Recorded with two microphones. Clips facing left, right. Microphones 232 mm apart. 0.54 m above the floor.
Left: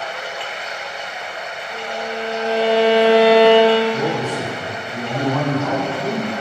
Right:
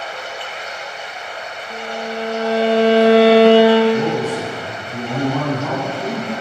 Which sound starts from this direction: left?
Running water, at 0.0 s.